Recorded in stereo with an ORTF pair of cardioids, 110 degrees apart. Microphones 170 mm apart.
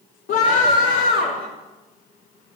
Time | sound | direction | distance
0.3 | a scream | 65° left | 3 m